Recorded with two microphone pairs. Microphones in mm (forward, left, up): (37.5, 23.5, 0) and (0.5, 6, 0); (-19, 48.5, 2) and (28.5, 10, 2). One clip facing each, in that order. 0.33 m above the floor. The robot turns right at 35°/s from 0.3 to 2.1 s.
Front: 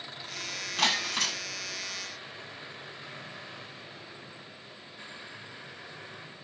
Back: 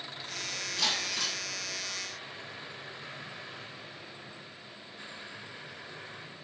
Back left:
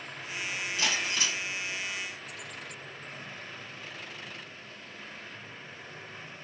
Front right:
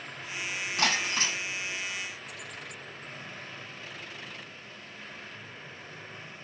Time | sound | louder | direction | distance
0.8 | breaking glass | front 5 dB, front right 3 dB | 10° right | 1.0 m